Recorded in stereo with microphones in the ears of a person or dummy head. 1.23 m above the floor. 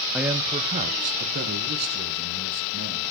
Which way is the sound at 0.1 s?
5° right (ahead or behind).